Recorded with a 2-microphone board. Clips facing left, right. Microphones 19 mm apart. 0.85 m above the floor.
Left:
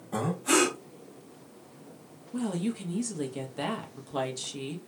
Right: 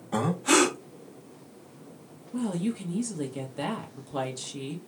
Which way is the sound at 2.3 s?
5° left (ahead or behind).